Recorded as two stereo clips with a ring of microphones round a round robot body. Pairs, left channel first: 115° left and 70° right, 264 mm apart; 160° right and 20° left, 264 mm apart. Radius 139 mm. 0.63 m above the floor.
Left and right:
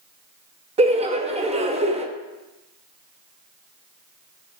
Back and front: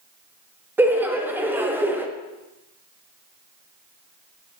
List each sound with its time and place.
0.8 s laughter: 50° right, 0.7 m